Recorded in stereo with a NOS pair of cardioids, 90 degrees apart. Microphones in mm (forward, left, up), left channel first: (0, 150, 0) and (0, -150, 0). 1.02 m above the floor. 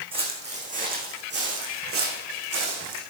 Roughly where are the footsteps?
Ahead.